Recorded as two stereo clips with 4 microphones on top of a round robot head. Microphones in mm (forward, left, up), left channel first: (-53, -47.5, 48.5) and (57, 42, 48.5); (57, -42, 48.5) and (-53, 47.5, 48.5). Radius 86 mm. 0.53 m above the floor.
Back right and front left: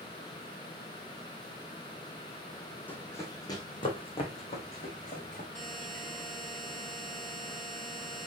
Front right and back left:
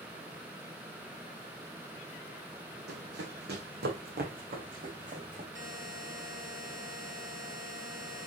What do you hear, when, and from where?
2.9 s running footsteps: 140° left, 1.8 m; by 5.5 s straight behind, 3 m
5.5 s a buzzer: 135° left, 3 m